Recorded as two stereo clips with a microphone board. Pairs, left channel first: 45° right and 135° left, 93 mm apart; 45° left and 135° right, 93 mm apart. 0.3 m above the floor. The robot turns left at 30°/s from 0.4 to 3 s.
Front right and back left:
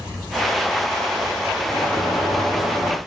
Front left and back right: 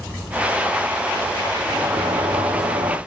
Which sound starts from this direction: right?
A sliding door, at 1.7 s.